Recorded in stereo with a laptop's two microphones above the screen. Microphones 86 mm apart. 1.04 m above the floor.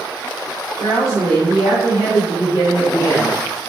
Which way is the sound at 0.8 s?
30° left (ahead or behind).